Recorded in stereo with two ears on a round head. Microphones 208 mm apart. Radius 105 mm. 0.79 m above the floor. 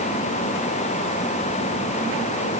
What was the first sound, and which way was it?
Only background noise.